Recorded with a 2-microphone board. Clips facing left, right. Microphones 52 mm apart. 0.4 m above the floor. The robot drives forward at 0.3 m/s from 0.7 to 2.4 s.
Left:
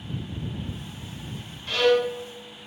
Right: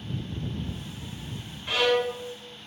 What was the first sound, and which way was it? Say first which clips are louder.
A violin: left 3 dB; 15° right (ahead or behind).